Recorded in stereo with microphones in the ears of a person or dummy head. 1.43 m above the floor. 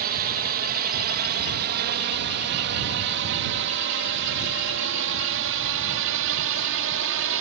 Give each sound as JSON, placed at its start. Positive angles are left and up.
{"t": 0.0, "sound": "a drone", "side_deg": -50}